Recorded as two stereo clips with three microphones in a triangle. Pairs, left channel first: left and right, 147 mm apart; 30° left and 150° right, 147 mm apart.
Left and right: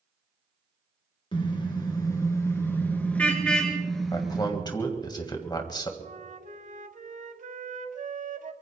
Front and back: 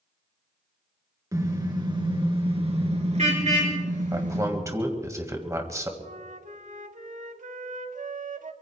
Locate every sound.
1.3 s a car horn: 145° left, 3 m; by 4.5 s 175° right, 3.5 m
4.1 s a man speaking: 145° left, 2.0 m
6.0 s a flute: 120° right, 0.8 m